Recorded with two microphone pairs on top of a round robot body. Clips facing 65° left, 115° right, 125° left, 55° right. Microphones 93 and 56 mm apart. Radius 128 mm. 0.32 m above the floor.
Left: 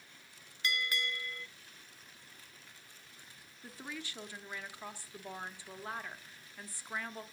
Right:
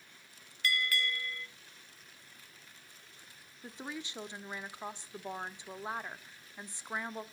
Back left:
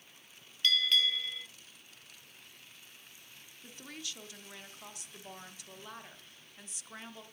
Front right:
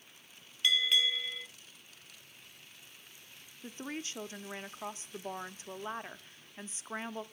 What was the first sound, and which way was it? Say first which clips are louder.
A bell: right 2 dB, even; 15° left.